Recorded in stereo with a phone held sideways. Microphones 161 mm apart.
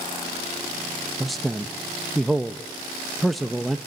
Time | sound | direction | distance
1.2 | a man speaking | centre (ahead or behind) | 0.8 m